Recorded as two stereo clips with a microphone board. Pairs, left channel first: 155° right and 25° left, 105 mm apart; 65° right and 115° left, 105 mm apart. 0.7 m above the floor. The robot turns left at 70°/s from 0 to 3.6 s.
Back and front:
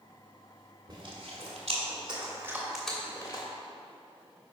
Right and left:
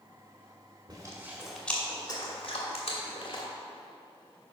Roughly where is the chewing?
Left.